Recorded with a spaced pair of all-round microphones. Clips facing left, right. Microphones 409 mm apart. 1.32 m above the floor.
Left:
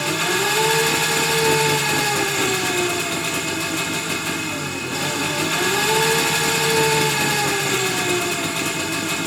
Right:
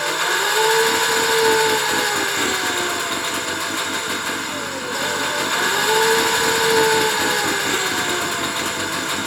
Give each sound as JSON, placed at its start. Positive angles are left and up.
{"t": 0.0, "sound": "an engine running", "side_deg": 45}